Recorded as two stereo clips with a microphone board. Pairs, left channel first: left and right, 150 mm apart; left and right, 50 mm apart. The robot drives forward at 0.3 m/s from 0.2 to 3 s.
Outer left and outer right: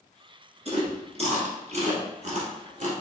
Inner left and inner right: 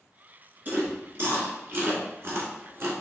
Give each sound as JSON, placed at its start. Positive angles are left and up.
{"t": 0.7, "sound": "chewing", "side_deg": -45, "distance_m": 1.4}